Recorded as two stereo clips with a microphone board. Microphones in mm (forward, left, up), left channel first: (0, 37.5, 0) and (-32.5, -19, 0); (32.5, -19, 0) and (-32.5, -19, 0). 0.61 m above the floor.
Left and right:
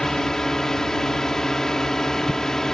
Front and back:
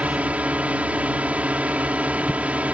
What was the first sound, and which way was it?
A drone, 135° left.